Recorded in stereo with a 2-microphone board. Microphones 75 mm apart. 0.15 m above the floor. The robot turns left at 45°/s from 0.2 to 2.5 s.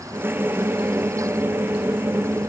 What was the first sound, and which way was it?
Only background noise.